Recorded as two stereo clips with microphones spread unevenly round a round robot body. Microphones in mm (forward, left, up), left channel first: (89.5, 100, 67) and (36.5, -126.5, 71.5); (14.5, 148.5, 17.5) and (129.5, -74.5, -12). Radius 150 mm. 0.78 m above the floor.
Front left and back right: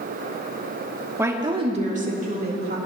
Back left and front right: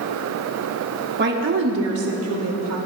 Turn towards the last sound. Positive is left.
turn(degrees=-60)